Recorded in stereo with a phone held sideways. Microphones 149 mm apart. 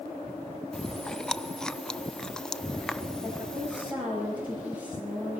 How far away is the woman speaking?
About 9.5 m.